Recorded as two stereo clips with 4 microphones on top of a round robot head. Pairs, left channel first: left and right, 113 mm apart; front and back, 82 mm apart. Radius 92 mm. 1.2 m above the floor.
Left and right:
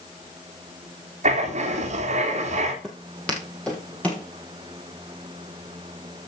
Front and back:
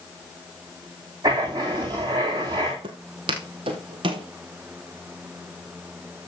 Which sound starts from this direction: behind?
Footsteps, at 2.8 s.